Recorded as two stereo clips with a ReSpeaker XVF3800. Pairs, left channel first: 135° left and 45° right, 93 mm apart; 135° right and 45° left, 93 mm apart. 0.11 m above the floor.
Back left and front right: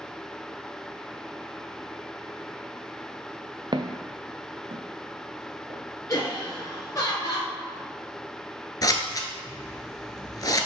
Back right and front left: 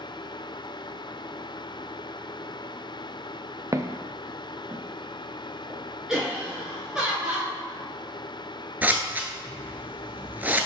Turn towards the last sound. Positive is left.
turn(degrees=110)